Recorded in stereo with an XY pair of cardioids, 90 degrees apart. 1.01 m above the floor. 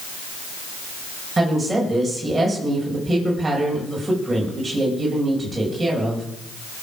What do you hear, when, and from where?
1.4 s a woman speaking: 20° right, 5 m